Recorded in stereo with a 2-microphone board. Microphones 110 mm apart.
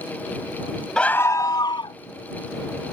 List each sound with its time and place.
1.0 s a scream: 10° left (ahead or behind); by 2.0 s 50° left (ahead or behind)